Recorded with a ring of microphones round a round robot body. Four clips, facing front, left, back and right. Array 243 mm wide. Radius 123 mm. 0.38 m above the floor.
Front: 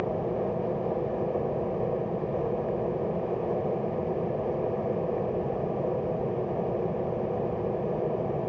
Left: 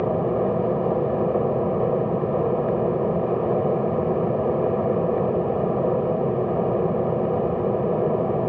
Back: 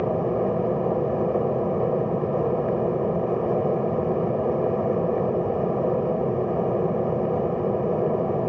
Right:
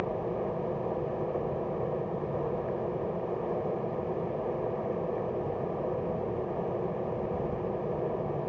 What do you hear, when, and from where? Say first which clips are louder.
0.0 s an aircraft: left 10 dB, back 6 dB; 125° left